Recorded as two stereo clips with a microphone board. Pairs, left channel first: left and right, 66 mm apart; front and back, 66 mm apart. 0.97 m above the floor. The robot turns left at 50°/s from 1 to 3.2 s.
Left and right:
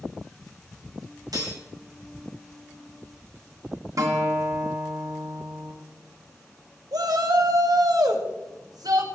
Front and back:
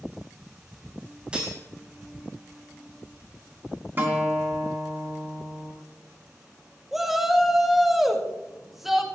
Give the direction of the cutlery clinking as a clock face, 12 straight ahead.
3 o'clock.